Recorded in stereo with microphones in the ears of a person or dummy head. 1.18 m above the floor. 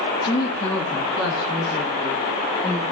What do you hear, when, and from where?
0.2 s a woman speaking: 25° left (ahead or behind), 0.6 m; by 2.8 s 15° right (ahead or behind), 2.5 m